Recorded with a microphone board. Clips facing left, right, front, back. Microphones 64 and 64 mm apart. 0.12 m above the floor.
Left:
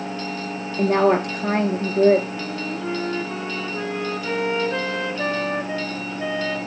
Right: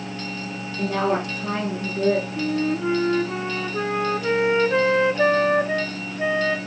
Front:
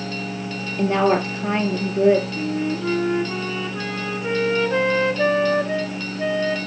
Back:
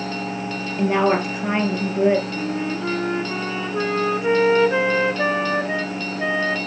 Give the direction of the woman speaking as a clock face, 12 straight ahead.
8 o'clock.